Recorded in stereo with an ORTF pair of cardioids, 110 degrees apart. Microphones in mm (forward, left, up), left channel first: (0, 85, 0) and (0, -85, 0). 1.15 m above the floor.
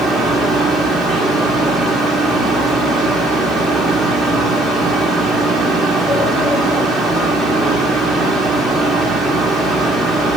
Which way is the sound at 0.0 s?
Straight ahead.